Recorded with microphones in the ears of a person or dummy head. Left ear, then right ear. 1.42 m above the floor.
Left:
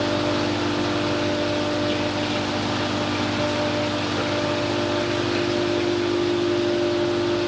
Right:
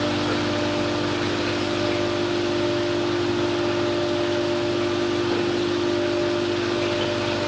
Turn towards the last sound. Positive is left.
No sound to turn to.